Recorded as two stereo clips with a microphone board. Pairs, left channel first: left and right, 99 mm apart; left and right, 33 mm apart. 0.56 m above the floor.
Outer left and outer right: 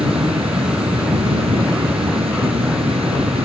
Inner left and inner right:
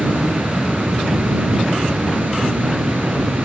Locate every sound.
0.0 s an insect: 75° right (ahead or behind)